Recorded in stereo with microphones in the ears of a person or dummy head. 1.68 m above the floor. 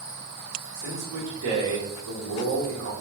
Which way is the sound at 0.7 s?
75° right (ahead or behind).